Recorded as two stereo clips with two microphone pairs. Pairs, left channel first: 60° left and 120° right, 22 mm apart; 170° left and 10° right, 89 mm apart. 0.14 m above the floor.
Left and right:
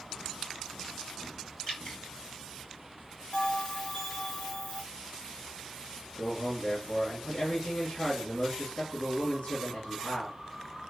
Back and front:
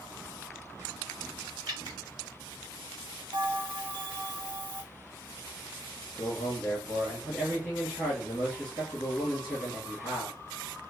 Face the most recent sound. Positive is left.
turn(degrees=65)